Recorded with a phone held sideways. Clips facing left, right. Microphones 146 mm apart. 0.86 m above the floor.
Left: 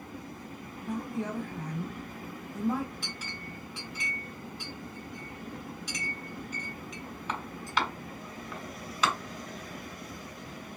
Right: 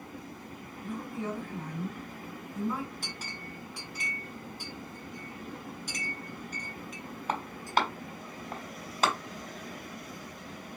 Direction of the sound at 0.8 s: 80° left.